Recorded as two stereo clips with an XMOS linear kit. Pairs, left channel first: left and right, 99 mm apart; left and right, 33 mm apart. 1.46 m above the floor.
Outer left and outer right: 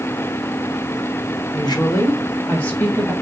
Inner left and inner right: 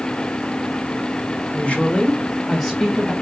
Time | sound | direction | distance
1.5 | a woman speaking | 55° left (ahead or behind) | 1.0 m